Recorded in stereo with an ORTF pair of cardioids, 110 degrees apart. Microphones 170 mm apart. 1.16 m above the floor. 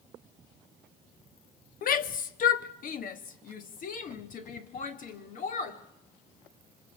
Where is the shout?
60° left, 1.3 m; by 5.8 s 50° left, 3.5 m.